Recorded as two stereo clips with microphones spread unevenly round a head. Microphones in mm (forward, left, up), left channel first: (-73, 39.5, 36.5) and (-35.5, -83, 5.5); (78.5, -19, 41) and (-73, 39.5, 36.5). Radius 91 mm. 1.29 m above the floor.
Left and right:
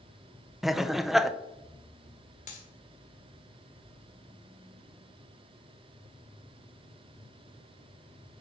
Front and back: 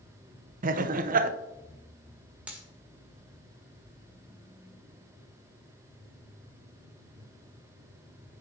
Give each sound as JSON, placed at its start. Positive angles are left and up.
{"t": 0.6, "sound": "laughter", "azimuth_deg": -160, "distance_m": 0.7}
{"t": 2.5, "sound": "a dropped coin", "azimuth_deg": 75, "distance_m": 1.6}